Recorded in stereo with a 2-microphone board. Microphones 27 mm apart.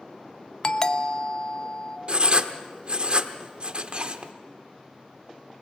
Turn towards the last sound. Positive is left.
turn(degrees=-40)  # may be behind; listen again after turning